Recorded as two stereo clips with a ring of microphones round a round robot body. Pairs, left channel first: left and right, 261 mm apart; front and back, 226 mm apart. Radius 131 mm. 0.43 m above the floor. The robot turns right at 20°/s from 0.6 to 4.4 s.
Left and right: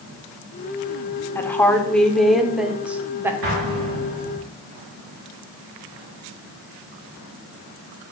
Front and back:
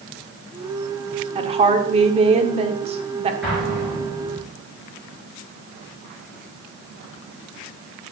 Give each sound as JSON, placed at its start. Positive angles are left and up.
{"t": 1.4, "sound": "a woman speaking", "azimuth_deg": 160, "distance_m": 0.7}
{"t": 3.4, "sound": "an explosion", "azimuth_deg": -90, "distance_m": 3.0}